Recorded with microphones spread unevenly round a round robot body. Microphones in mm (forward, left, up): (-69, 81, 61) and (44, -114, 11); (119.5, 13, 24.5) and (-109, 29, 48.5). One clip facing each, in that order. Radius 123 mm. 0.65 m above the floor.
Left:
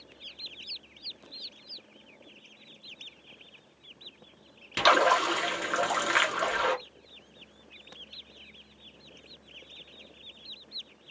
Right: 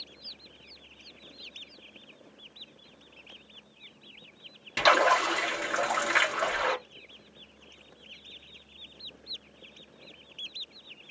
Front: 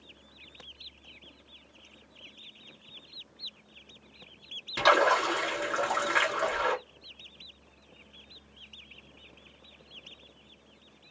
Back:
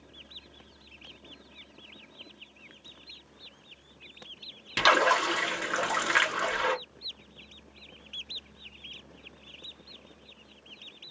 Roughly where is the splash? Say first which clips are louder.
Even, front 1 dB; behind.